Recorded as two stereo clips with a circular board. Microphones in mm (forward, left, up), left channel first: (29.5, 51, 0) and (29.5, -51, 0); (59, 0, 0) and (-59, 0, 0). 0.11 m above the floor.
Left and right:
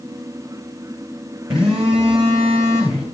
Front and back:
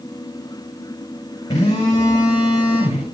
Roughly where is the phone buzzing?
Ahead right.